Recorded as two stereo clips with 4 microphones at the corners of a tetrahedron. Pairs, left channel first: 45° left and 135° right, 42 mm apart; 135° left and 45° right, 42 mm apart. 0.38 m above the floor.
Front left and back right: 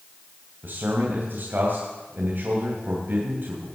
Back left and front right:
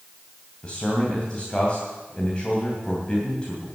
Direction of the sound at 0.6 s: 160° right.